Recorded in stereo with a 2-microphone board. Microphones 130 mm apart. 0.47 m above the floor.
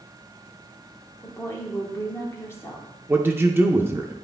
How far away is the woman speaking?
About 1.2 m.